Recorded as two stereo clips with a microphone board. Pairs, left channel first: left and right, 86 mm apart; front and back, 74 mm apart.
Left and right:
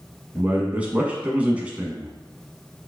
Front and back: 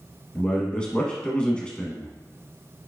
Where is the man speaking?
45° right, 1.0 m.